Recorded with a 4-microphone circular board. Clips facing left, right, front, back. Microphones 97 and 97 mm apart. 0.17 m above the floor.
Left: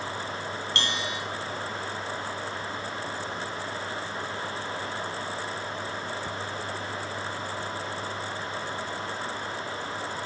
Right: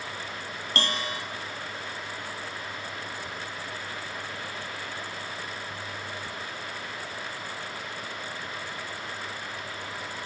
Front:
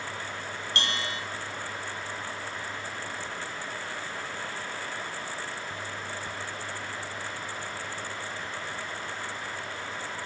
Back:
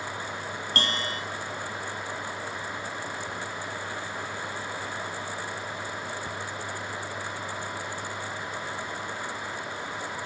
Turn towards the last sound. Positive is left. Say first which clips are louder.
# right 4 dB, back 2 dB
turn(degrees=-135)